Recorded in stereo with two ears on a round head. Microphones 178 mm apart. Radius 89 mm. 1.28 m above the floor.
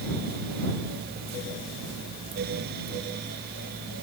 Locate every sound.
Only background noise.